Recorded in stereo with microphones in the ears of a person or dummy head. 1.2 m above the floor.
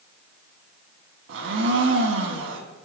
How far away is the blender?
About 2.5 m.